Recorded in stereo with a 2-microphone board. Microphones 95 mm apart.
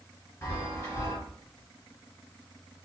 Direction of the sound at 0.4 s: 30° left (ahead or behind).